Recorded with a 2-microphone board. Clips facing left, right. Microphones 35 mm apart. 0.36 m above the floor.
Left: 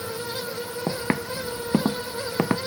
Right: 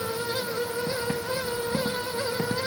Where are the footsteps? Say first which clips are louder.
Left 2 dB; 75° left (ahead or behind); by 2.6 s 80° left.